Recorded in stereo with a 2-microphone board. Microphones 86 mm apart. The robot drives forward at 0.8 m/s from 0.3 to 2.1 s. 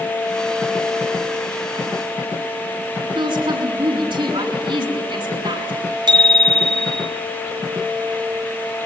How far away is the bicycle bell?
About 3 m.